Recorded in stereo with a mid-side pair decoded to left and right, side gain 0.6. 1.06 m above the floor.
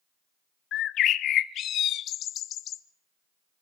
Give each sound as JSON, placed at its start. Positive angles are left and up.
{"t": 0.7, "sound": "a bird", "azimuth_deg": 55, "distance_m": 1.1}